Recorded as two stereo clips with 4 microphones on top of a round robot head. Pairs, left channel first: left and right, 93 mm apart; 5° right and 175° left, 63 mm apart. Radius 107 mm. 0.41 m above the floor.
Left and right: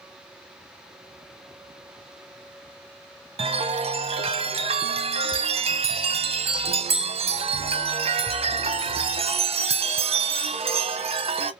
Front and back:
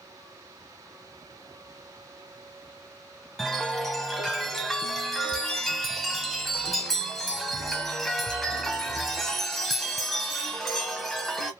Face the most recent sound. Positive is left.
turn(degrees=-90)